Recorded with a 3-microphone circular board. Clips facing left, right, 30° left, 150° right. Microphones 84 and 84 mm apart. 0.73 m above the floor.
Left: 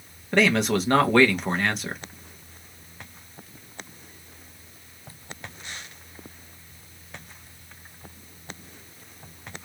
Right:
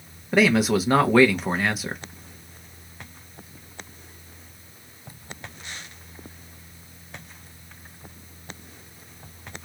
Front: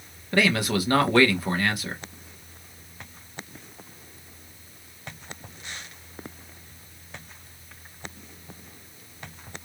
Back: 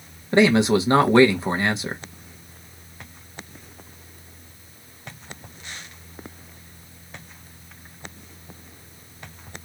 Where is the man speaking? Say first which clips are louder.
Right 2 dB, back 7 dB; 165° right, 0.8 m.